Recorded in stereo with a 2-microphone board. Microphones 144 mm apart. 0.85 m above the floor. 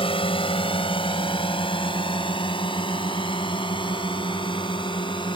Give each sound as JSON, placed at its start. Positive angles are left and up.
{"t": 0.0, "sound": "a drone", "side_deg": 40}